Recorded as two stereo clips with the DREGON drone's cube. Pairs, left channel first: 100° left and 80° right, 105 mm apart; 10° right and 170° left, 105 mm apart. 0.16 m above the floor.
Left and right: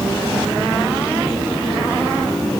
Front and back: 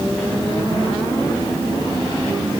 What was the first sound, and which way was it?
Only background noise.